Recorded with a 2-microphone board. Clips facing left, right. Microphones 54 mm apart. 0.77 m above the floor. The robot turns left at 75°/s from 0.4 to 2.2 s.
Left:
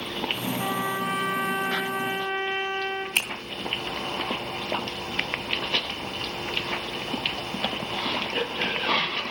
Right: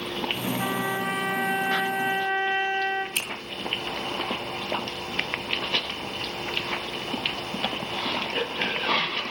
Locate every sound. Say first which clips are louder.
0.6 s a trumpet: left 1 dB; 15° right, 5 m; by 3.0 s 135° right, 5 m
3.1 s a finger snap: left 4 dB; 45° left (ahead or behind), 2.5 m